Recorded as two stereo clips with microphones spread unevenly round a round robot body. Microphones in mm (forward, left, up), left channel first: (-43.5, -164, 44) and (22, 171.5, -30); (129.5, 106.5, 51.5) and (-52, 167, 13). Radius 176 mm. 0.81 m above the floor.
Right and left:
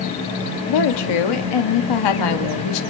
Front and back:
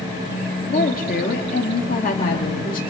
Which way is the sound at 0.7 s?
80° right.